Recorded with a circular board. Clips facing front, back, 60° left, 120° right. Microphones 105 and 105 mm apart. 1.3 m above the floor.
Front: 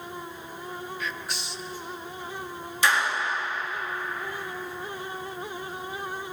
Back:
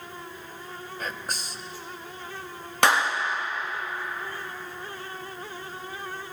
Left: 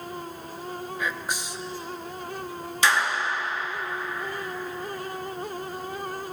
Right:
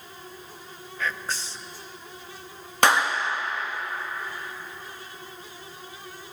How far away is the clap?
About 1.7 m.